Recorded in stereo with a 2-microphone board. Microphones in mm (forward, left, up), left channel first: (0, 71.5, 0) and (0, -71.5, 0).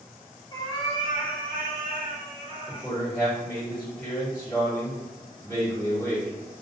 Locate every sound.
0.5 s a cat meowing: 25° left (ahead or behind), 0.8 m; by 2.9 s 45° left (ahead or behind), 1.4 m
2.7 s a man speaking: 25° left (ahead or behind), 2.0 m